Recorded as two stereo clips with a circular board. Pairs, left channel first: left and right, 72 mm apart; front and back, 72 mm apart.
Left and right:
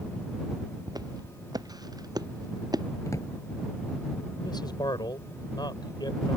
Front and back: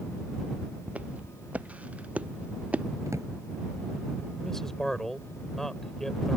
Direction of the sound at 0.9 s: 110° right.